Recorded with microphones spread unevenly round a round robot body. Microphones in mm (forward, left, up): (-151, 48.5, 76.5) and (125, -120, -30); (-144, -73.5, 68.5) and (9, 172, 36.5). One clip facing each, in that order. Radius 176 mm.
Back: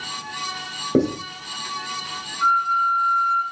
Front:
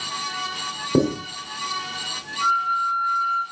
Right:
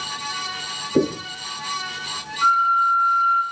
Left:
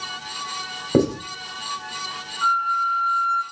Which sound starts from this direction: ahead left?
Writing, at 0.9 s.